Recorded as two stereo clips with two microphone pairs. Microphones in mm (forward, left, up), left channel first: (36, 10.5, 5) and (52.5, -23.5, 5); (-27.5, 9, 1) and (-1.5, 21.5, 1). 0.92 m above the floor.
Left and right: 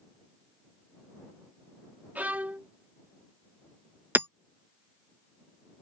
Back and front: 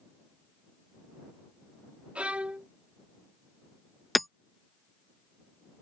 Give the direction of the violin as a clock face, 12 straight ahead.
1 o'clock.